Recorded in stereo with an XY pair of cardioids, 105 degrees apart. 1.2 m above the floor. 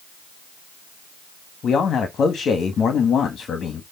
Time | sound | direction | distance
1.6 | a man speaking | 55° left | 1.9 m